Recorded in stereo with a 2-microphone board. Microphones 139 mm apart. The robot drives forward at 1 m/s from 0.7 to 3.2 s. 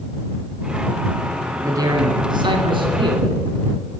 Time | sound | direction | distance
1.6 | a man speaking | 25° right (ahead or behind) | 1.6 m